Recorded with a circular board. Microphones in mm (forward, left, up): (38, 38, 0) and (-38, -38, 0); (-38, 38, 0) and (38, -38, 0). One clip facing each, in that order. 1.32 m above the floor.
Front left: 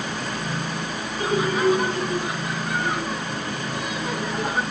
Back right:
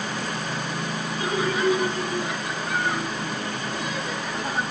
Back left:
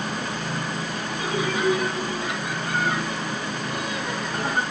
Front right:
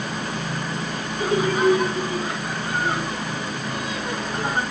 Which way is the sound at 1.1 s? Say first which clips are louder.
Front left 3 dB, front right 6 dB; 5° right.